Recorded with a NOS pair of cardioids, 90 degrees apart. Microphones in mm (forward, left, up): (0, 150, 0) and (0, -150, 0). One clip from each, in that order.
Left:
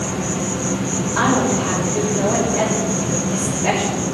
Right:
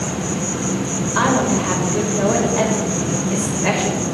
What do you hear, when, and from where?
0.0 s an insect: 10° right, 2 m
1.1 s a woman speaking: 30° right, 7 m